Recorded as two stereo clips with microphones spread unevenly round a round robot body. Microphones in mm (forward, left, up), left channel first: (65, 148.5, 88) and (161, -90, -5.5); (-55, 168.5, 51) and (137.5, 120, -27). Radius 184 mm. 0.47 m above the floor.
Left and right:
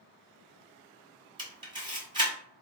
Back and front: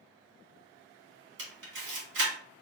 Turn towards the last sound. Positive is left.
turn(degrees=0)